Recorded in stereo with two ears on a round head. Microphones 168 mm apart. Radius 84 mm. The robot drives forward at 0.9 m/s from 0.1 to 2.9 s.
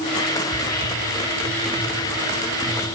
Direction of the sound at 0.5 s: 55° left (ahead or behind).